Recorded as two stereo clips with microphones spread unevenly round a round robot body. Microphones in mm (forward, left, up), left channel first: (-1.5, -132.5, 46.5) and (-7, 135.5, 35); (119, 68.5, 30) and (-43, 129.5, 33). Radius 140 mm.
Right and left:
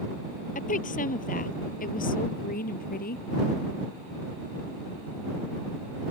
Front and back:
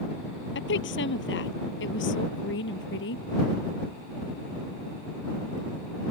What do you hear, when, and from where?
0.6 s a woman speaking: 25° right; by 3.2 s 30° right